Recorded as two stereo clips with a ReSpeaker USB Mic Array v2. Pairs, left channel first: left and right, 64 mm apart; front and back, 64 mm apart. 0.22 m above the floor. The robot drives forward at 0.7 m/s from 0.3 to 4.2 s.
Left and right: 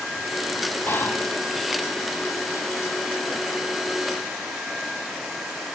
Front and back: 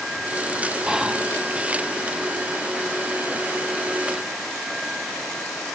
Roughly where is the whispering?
Left.